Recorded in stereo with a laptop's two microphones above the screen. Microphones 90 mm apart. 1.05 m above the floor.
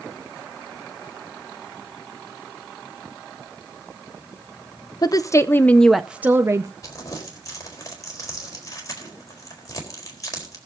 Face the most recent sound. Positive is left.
turn(degrees=40)  # may be behind; listen again after turning